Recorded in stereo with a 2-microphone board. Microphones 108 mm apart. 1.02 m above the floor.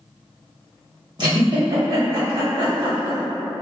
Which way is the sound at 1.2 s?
45° right (ahead or behind).